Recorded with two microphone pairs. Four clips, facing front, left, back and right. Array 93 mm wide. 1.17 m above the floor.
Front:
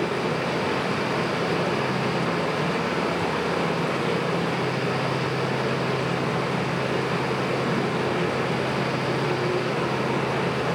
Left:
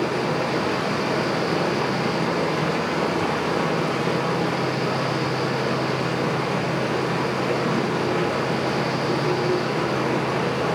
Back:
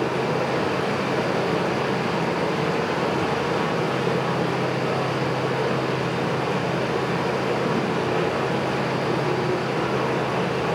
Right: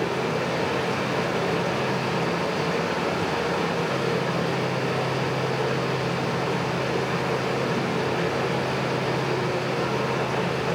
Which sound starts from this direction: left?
Running water, at 0.0 s.